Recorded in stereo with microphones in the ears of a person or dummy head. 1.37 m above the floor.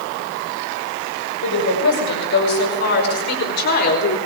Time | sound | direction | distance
1.4 | a woman speaking | 65° left (ahead or behind) | 6.5 m